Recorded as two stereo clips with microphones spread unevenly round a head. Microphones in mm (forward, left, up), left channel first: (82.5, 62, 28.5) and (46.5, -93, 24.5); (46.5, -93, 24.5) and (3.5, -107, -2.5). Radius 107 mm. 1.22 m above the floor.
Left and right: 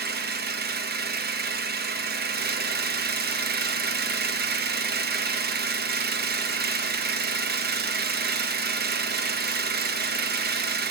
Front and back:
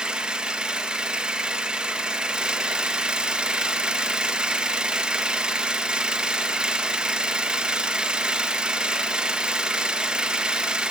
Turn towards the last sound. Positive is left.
turn(degrees=-80)